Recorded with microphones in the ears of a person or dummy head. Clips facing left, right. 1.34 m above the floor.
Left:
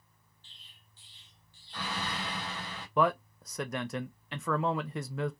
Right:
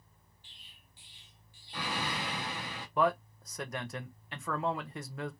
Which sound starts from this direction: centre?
An explosion, at 0.4 s.